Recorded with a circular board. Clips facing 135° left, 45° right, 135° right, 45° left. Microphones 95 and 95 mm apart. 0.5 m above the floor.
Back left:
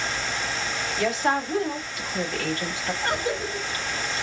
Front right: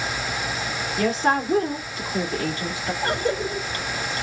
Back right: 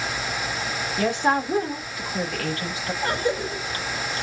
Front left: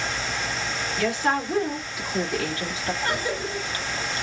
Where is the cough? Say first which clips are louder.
Front right 4 dB, back right 5 dB; 75° right, 1.8 m.